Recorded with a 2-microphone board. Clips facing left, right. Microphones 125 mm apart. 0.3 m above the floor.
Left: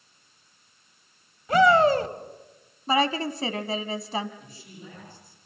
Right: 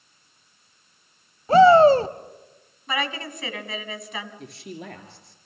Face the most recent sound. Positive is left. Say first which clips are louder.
# right 8 dB
turn(degrees=-75)  # may be behind; listen again after turning